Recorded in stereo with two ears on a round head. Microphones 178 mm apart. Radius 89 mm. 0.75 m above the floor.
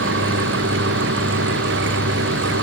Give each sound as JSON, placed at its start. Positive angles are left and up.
{"t": 0.0, "sound": "an engine running", "side_deg": -65}